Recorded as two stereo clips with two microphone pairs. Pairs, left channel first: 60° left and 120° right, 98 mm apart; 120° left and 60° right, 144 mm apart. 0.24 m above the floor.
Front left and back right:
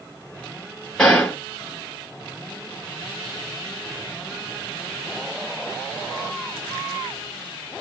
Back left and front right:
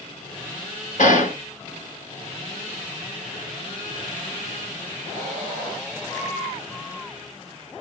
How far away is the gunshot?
About 1.9 m.